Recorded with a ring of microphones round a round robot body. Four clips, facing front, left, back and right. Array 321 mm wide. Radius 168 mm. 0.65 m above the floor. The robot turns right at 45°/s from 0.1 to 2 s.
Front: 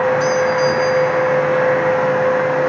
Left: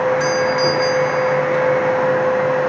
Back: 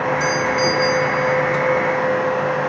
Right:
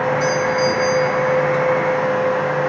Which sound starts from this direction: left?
A doorbell, at 0.2 s.